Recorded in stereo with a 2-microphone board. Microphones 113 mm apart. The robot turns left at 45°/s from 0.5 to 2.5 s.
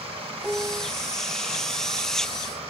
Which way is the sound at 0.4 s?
10° right (ahead or behind).